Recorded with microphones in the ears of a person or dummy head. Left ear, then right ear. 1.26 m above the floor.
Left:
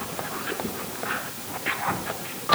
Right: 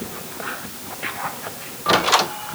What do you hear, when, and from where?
Only background noise.